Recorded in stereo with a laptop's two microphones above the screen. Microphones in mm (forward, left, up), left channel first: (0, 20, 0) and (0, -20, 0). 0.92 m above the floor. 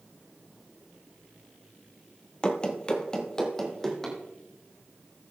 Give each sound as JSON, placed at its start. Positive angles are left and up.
{"t": 2.4, "sound": "running footsteps", "side_deg": 25, "distance_m": 1.0}